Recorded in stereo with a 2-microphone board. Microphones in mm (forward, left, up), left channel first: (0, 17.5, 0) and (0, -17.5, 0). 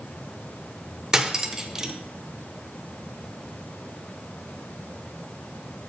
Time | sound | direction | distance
1.1 | cutlery clinking | 15° right (ahead or behind) | 0.6 m